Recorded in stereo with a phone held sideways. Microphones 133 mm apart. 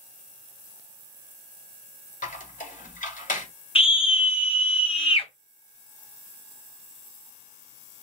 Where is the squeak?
80° left, 1.7 m.